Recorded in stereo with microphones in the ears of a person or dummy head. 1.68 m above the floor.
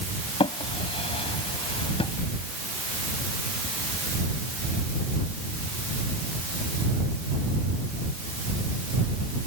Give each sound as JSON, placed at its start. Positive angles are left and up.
{"t": 0.4, "sound": "a drawer", "side_deg": 35}